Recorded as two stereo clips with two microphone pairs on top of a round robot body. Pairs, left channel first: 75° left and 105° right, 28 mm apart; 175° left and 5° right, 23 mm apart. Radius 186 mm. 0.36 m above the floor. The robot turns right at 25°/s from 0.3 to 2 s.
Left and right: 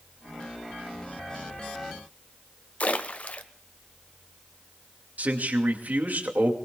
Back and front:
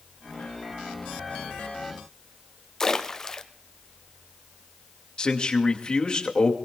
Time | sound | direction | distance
2.8 | a splash | 110° left | 0.9 m
5.2 | a man speaking | 130° right | 2.5 m